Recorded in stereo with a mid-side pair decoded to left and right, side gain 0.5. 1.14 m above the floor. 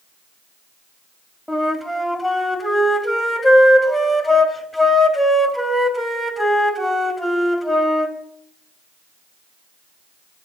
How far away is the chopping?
No chopping in this recording.